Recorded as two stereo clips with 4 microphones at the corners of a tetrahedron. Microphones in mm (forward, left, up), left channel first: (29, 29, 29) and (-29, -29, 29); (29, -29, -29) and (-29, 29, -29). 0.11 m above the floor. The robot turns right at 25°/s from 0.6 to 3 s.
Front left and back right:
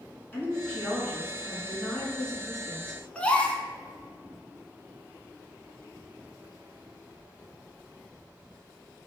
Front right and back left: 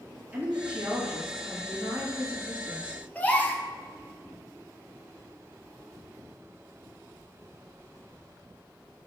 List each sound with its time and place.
0.3 s a woman speaking: 80° left, 1.2 m; by 3.0 s 140° left, 1.2 m
3.1 s a gasp: 10° right, 0.5 m